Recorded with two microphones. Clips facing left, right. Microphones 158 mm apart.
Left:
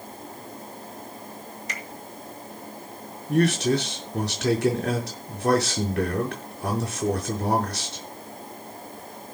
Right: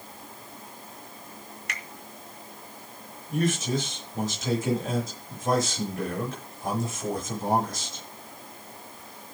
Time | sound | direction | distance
1.7 | a finger snap | 65° right (ahead or behind) | 2.5 m
3.3 | a man speaking | 75° left (ahead or behind) | 5.5 m